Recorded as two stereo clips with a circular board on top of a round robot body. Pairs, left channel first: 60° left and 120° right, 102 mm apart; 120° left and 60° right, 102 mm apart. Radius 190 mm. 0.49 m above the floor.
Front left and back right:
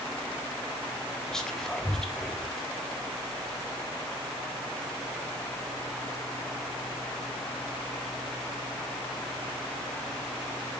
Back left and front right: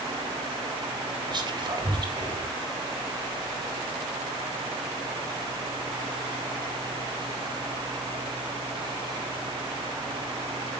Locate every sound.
1.3 s whispering: 25° right, 3.5 m